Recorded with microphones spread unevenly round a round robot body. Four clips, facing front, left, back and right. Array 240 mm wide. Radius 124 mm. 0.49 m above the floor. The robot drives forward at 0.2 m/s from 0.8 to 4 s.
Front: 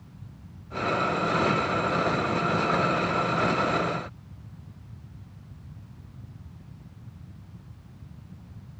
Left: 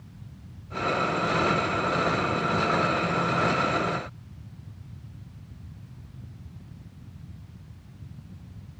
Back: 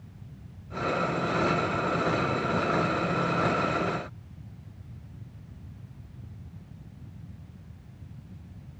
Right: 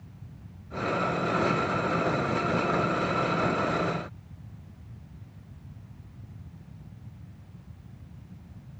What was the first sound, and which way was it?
Only background noise.